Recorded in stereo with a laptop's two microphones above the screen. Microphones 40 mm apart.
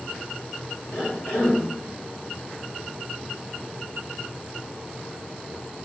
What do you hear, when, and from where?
0.9 s a cough: 75° left (ahead or behind), 4.5 m